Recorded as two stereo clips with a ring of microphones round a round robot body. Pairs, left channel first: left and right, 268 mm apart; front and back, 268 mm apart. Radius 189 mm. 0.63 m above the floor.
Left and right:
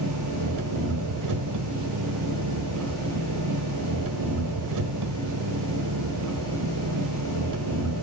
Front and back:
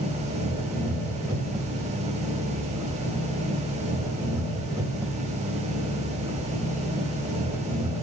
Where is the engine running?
100° right, 1.6 m.